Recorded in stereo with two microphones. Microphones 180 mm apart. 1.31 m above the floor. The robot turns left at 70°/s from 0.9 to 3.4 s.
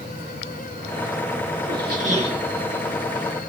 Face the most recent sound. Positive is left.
turn(degrees=135)